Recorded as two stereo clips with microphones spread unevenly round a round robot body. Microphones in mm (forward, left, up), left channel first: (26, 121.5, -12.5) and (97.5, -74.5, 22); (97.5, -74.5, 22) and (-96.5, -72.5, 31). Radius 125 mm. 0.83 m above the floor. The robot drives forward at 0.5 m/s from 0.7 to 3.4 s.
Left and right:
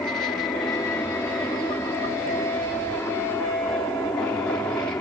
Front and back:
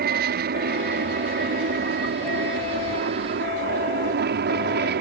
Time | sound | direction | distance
0.0 | an aircraft | 170° right | ?